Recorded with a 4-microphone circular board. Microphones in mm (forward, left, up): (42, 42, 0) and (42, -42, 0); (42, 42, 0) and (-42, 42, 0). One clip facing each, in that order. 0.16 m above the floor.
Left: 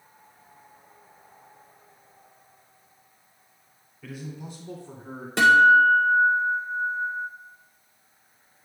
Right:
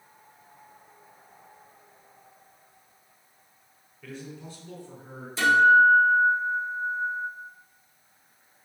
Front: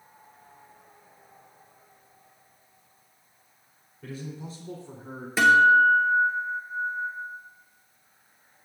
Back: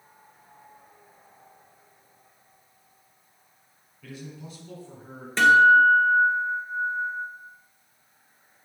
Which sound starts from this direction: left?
A guitar, at 5.4 s.